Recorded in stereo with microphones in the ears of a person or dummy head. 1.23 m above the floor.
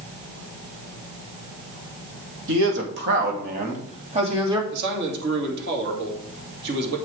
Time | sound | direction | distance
2.5 | a man speaking | 75° right (ahead or behind) | 2 m
4.7 | a man speaking | 55° right (ahead or behind) | 2 m